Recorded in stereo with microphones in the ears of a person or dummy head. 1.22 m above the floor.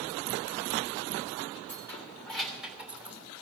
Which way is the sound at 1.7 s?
10° left (ahead or behind).